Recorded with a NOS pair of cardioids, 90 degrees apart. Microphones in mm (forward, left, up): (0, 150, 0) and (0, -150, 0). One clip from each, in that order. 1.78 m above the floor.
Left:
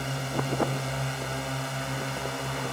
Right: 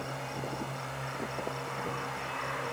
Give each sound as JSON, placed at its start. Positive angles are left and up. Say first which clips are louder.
{"t": 0.0, "sound": "a drone", "louder": "left 6 dB", "azimuth_deg": 70}